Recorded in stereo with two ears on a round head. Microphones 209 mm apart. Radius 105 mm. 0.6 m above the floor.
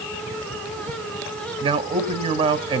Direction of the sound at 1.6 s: 25° right (ahead or behind).